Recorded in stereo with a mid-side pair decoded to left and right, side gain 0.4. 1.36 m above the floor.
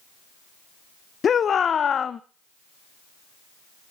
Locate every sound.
1.2 s a shout: 55° left, 0.8 m